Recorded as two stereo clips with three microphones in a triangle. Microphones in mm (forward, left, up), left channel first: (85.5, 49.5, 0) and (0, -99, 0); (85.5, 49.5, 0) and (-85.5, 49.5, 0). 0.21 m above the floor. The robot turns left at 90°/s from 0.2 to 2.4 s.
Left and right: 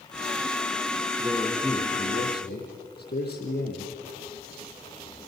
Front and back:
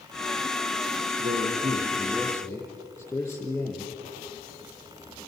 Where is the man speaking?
175° right, 5.5 m; by 4.0 s 75° left, 5.5 m.